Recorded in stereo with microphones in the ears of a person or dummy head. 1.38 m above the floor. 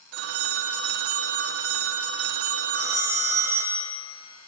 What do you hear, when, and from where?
0.1 s a phone ringing: 60° right (ahead or behind), 0.6 m
2.8 s a phone ringing: 15° right (ahead or behind), 0.9 m